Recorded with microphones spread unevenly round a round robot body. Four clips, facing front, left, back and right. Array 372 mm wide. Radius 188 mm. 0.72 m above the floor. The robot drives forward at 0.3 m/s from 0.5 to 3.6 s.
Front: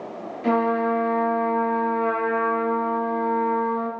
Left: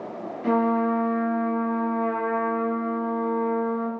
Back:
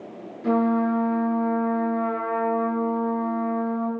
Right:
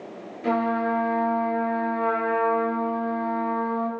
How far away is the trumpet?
About 5 m.